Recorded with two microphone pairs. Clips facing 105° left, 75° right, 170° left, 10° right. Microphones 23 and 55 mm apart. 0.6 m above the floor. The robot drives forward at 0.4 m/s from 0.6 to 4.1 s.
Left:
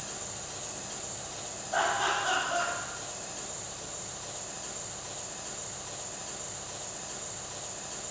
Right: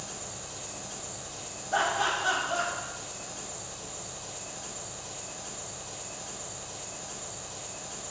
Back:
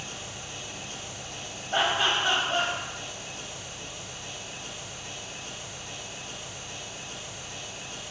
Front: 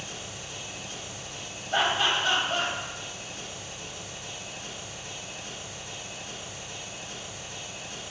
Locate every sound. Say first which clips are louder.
0.0 s an engine running: even, even; 115° left, 1.1 m; by 8.1 s 155° left, 2 m
1.7 s laughter: right 1 dB, even; 100° right, 0.9 m; by 2.7 s 130° right, 1.0 m